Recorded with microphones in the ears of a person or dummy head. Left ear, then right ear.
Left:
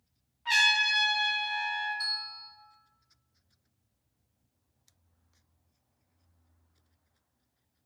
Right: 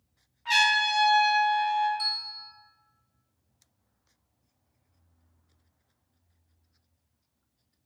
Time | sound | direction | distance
0.5 | a trumpet | 5° right (ahead or behind) | 0.6 m
2.0 | a bell | 25° right (ahead or behind) | 1.2 m